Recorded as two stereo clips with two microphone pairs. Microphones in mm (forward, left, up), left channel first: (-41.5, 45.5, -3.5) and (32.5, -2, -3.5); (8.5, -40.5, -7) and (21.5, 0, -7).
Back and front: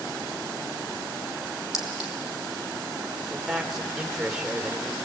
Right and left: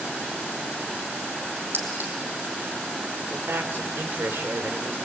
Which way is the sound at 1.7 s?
55° left.